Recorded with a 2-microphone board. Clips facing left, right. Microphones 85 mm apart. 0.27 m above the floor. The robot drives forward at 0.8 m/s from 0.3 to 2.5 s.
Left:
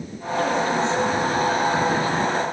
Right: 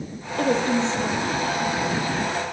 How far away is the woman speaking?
About 6.5 m.